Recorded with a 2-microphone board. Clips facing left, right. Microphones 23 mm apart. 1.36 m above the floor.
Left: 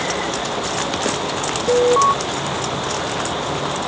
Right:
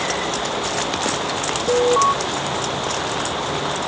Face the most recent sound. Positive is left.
turn(degrees=5)  # may be behind; listen again after turning